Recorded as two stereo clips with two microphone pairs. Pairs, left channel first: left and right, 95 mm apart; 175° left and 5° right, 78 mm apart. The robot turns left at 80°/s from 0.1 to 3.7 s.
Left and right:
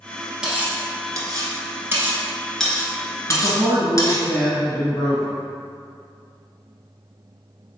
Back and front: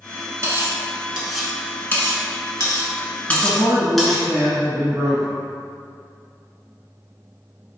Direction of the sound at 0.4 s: 15° right.